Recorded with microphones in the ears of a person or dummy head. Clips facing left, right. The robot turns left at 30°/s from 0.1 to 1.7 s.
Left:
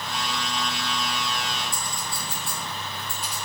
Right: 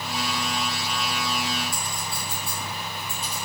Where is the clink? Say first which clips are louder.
Right 1 dB; 5° left (ahead or behind), 0.6 m.